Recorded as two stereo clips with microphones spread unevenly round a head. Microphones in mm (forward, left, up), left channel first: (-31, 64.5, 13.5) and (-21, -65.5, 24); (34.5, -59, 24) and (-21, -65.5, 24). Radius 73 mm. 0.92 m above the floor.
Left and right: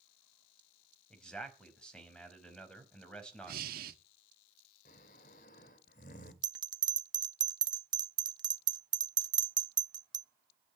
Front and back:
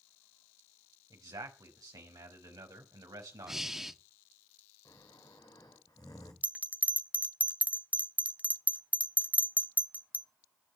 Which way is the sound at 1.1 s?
Straight behind.